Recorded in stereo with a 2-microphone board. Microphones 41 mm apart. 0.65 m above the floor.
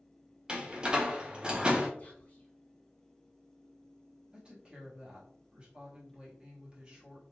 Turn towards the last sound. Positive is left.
turn(degrees=-25)  # may be behind; listen again after turning